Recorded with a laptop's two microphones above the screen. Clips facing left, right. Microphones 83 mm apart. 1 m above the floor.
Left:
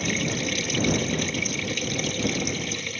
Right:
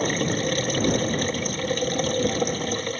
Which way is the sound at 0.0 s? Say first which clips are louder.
Right 4 dB; 45° right (ahead or behind).